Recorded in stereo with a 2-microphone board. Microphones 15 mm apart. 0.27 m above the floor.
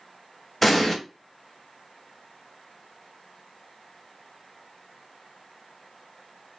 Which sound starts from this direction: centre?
An explosion, at 0.6 s.